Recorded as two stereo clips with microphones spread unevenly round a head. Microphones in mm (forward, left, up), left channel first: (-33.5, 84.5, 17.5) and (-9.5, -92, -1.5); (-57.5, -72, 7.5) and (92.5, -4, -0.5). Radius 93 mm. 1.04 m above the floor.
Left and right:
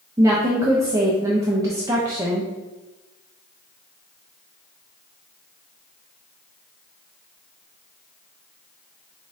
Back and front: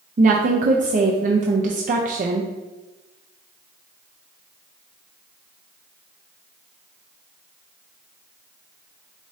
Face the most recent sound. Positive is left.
turn(degrees=-10)